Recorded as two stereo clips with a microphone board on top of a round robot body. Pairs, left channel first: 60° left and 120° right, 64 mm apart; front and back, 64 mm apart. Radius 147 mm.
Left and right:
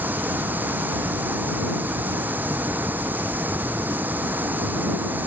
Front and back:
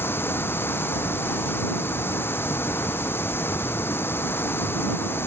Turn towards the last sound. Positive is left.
turn(degrees=-55)